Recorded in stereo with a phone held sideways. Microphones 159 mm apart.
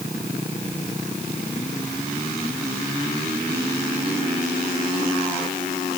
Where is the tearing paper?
I don't hear tearing paper.